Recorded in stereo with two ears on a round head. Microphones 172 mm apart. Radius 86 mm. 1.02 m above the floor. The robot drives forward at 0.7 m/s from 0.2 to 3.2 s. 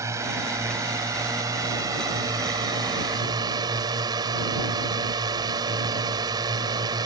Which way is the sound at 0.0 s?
15° right (ahead or behind).